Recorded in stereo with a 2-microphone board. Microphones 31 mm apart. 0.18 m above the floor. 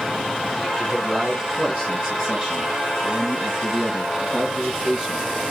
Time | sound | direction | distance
0.8 | a man speaking | 20° right (ahead or behind) | 2.5 m